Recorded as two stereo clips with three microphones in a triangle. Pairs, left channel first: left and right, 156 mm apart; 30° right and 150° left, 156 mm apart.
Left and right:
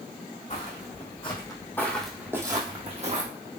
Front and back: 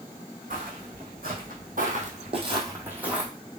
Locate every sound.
0.5 s footsteps: 130° left, 2 m; by 3.3 s 125° right, 1.7 m